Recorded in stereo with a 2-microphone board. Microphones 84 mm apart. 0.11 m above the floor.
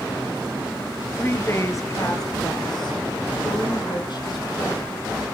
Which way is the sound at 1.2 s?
25° left (ahead or behind).